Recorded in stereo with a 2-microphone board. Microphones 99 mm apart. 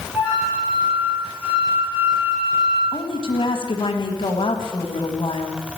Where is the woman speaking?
60° left (ahead or behind), 1.8 m.